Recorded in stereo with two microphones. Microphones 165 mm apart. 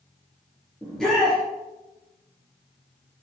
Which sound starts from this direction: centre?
A shout, at 0.8 s.